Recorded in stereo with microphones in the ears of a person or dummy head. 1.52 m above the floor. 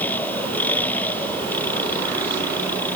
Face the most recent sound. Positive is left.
turn(degrees=10)  # may be behind; listen again after turning